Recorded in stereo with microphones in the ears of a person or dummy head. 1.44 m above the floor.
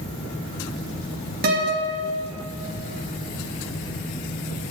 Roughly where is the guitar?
Right.